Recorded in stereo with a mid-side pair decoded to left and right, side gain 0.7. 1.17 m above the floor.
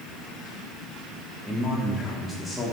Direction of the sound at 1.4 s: 10° left.